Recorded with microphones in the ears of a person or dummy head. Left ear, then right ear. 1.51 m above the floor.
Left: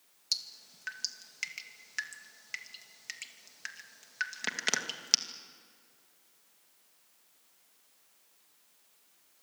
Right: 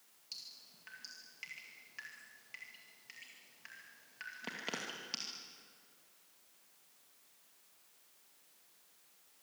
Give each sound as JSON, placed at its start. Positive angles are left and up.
{"t": 0.3, "sound": "dripping", "side_deg": 55, "distance_m": 2.0}